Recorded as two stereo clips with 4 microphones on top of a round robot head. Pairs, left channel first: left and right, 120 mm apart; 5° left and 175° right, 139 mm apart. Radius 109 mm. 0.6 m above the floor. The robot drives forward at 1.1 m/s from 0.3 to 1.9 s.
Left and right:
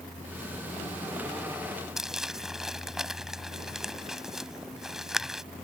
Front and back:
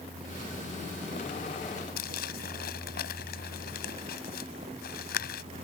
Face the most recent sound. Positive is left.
turn(degrees=-5)